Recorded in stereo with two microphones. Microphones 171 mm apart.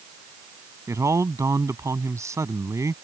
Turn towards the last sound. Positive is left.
turn(degrees=-15)  # may be behind; listen again after turning